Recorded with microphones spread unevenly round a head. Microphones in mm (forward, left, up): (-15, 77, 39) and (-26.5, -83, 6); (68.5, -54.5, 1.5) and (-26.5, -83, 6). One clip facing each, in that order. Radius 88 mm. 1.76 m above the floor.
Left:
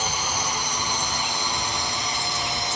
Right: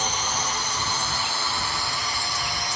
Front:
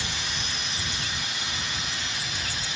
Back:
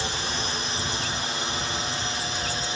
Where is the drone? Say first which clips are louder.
Even, back 5 dB; 175° left; by 2.8 s 155° left.